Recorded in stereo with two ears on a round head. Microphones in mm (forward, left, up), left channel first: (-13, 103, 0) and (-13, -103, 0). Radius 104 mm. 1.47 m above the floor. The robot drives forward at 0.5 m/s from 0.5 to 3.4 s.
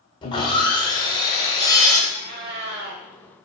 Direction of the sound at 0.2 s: 20° left (ahead or behind).